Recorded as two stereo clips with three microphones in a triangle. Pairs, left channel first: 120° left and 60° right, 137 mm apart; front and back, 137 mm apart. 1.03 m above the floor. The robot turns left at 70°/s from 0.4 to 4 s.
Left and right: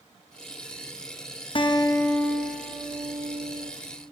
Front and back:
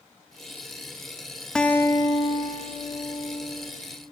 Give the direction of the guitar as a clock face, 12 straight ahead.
9 o'clock.